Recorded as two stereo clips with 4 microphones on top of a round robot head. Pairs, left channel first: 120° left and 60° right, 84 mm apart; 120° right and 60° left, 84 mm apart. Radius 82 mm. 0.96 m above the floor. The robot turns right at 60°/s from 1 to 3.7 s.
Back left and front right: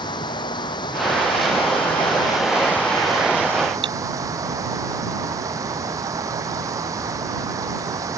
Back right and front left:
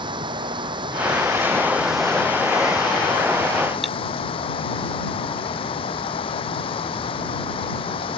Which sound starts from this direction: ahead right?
Cutlery clinking, at 3.8 s.